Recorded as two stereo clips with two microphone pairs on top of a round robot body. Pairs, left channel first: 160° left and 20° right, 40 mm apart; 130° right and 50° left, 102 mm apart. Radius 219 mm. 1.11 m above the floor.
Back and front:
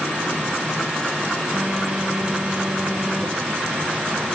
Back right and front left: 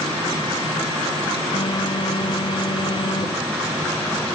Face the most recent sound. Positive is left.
turn(degrees=-95)